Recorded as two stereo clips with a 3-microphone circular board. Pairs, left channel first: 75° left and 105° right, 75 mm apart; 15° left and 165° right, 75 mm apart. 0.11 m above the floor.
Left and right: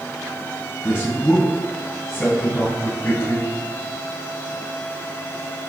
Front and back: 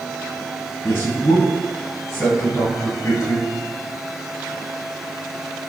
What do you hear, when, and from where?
0.8 s a man speaking: 45° left, 1.6 m